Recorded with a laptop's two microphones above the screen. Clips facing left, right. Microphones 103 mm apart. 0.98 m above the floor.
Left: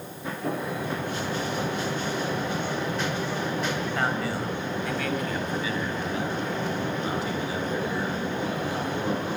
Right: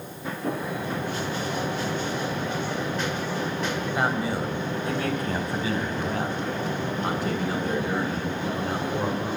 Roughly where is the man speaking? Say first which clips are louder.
Right 2 dB; centre.